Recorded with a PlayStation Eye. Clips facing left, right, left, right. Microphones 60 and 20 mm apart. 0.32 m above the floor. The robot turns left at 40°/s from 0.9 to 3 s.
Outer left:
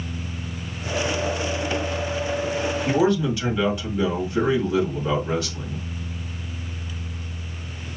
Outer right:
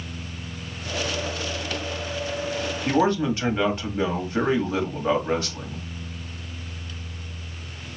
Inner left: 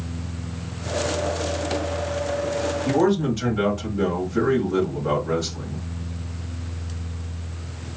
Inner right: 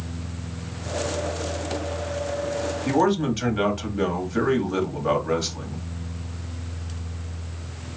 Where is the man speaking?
40° right (ahead or behind), 1.8 m; by 5.9 s 35° right (ahead or behind), 1.8 m.